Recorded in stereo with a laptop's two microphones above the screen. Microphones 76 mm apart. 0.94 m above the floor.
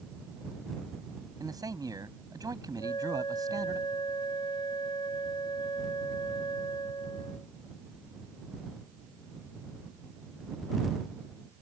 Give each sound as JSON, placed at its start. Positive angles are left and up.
{"t": 1.4, "sound": "a man speaking", "side_deg": -55}
{"t": 2.8, "sound": "a flute", "side_deg": 85}